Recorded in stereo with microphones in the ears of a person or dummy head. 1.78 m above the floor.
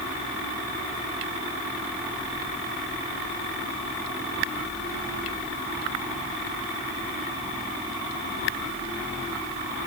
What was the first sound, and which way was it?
Only background noise.